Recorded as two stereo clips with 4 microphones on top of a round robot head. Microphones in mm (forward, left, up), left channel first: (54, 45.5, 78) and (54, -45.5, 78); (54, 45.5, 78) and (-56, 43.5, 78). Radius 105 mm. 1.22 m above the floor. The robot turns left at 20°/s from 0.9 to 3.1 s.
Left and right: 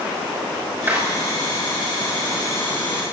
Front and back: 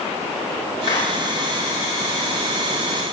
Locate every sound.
0.9 s a clap: 20° right, 6.5 m; by 1.1 s 25° right, 6.5 m